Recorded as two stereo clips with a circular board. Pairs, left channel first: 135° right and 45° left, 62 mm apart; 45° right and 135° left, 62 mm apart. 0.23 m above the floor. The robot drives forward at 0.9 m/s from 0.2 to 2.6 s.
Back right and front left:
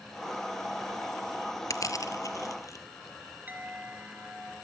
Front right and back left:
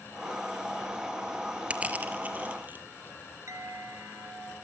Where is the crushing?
160° right, 1.5 m; by 2.9 s 165° right, 2.5 m.